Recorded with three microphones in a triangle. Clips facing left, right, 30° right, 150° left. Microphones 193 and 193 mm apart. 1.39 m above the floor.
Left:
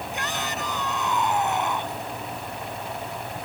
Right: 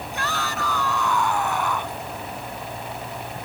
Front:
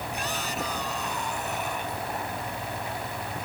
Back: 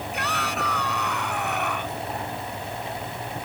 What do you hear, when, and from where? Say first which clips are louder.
0.1 s a shout: right 4 dB, back 3 dB; 160° left; by 2.0 s 155° left